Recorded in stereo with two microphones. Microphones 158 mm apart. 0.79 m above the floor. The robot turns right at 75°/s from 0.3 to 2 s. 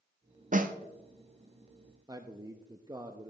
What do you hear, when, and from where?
0.5 s a snare drum: 55° right (ahead or behind), 0.8 m; by 0.7 s 65° right (ahead or behind), 0.8 m
2.1 s a man speaking: 25° right (ahead or behind), 0.6 m